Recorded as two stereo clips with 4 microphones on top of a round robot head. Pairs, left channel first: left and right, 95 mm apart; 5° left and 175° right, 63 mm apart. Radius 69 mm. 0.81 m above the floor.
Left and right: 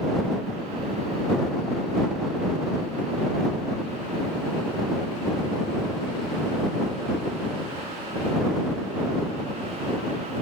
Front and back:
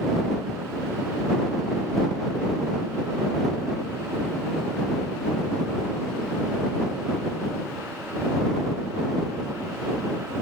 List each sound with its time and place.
Only background noise.